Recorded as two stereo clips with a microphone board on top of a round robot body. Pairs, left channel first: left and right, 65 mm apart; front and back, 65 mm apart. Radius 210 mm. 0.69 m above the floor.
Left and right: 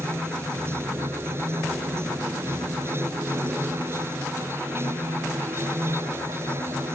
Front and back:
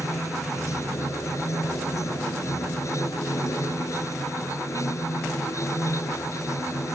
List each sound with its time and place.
0.0 s running water: 40° right